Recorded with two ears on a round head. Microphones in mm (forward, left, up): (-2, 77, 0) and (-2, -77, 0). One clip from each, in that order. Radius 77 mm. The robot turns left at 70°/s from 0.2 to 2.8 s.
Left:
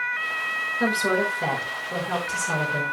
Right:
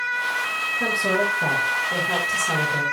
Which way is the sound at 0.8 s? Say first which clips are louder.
Right 1 dB; 105° left.